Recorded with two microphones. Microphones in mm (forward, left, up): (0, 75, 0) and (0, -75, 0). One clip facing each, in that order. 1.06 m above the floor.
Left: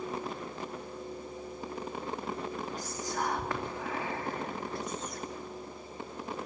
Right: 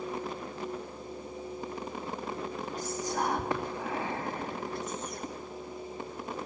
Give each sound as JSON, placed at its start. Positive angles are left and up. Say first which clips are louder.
{"t": 2.8, "sound": "whispering", "louder": "right 6 dB", "side_deg": -20, "distance_m": 2.5}